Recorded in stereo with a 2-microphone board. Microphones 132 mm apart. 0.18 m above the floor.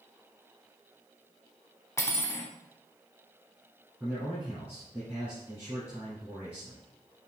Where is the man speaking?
15° right (ahead or behind), 2 m.